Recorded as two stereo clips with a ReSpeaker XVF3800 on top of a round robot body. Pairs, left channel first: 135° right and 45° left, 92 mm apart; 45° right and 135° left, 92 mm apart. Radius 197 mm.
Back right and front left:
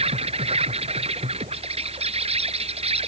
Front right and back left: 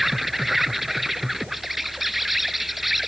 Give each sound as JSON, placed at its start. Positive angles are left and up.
{"t": 0.0, "sound": "an insect", "azimuth_deg": 45}